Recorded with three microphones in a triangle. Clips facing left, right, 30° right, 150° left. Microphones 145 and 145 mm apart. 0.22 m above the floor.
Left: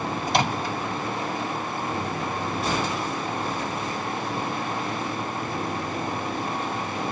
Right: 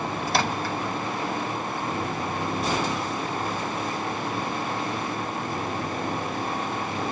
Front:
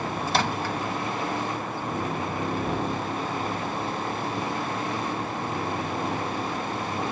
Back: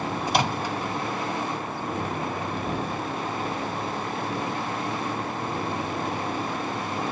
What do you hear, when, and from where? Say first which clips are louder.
0.3 s a microwave: left 2 dB, back 1 dB; 110° left, 0.8 m